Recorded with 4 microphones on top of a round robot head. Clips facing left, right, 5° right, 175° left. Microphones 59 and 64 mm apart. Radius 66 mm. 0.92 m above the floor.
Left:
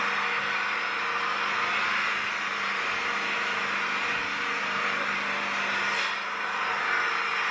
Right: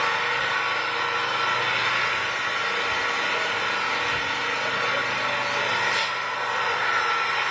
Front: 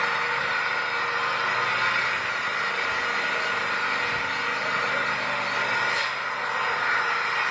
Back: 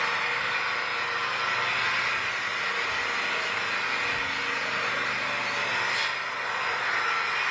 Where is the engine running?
70° right, 1.0 m.